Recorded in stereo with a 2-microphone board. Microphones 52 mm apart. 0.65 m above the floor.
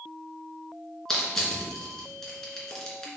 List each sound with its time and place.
1.1 s crushing: 10° left (ahead or behind), 2 m